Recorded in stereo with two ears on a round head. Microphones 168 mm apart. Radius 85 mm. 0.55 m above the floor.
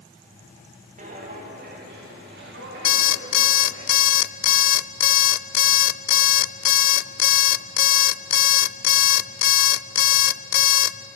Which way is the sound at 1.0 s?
45° right (ahead or behind).